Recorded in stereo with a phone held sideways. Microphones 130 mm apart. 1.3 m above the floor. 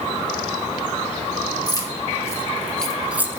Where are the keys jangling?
30° left (ahead or behind), 1.2 m; by 3.4 s 20° right (ahead or behind), 0.6 m.